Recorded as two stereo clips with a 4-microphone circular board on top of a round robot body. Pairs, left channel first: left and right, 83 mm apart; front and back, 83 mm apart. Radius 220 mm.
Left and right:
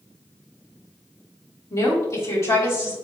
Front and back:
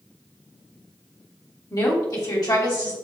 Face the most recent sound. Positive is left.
turn(degrees=35)